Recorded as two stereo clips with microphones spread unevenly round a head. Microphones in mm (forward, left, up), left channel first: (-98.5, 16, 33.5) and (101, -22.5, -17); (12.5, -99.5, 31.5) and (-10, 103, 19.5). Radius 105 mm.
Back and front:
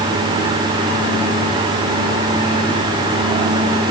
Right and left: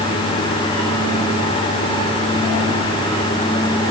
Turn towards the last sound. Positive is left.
No sound to turn to.